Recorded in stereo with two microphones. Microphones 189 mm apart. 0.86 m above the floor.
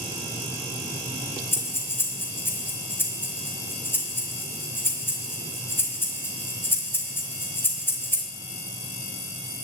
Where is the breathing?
15° left (ahead or behind), 4 m.